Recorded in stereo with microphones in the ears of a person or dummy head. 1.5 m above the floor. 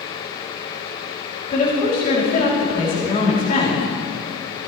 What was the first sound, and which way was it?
A woman speaking, 45° left (ahead or behind).